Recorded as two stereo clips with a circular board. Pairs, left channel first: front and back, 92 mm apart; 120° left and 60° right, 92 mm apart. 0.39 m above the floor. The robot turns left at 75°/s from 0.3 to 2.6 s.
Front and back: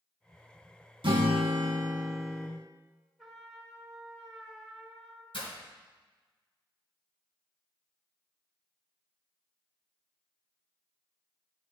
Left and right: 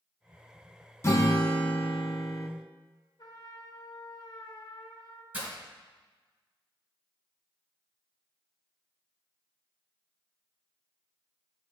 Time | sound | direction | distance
1.0 | a guitar | straight behind | 1.0 m
3.2 | a trumpet | 90° left | 1.0 m
5.3 | breaking glass | 10° left | 2.5 m